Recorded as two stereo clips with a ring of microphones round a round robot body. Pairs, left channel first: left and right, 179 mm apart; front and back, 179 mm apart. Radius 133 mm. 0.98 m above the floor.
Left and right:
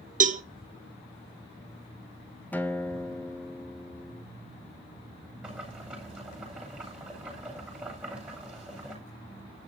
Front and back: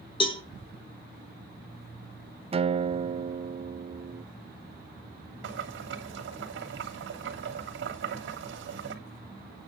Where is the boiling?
175° right, 3 m.